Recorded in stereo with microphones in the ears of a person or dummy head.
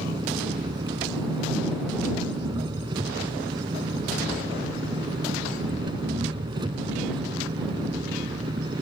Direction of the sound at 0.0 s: 25° right (ahead or behind).